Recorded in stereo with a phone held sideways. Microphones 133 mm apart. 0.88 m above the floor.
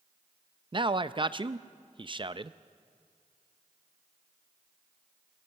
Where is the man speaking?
40° right (ahead or behind), 0.5 m.